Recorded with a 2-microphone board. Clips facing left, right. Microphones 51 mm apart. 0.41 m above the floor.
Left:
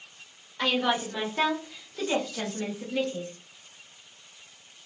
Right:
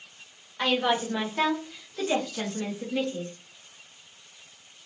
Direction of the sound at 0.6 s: 10° right (ahead or behind).